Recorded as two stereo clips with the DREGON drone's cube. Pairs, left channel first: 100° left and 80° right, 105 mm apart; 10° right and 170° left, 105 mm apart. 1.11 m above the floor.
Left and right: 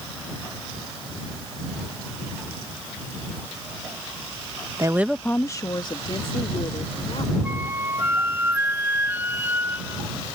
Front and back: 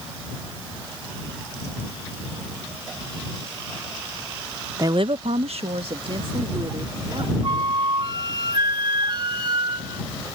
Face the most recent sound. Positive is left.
turn(degrees=-150)